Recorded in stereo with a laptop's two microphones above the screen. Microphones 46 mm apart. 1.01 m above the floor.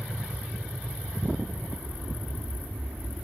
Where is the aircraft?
65° right (ahead or behind); by 3.2 s 55° right (ahead or behind).